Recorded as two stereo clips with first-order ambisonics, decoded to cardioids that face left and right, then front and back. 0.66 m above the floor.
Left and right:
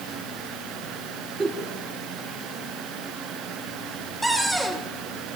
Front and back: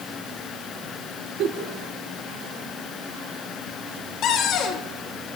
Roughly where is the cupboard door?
Ahead.